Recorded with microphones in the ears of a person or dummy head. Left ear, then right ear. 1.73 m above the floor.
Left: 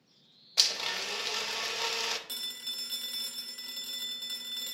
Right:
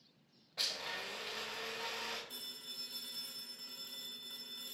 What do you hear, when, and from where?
0.6 s a blender: 80° left, 0.8 m
2.3 s a phone ringing: 50° left (ahead or behind), 1.0 m